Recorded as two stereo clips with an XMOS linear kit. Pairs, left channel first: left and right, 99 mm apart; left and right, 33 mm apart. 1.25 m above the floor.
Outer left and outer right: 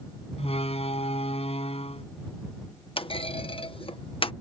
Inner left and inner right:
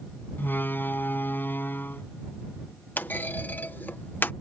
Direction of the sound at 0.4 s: 85° left.